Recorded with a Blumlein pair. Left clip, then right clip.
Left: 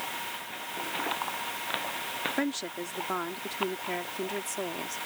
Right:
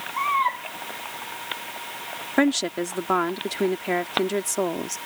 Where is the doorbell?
I don't hear a doorbell.